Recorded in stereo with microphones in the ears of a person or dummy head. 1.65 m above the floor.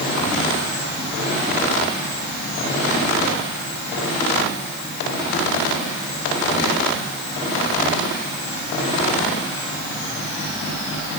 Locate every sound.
Only background noise.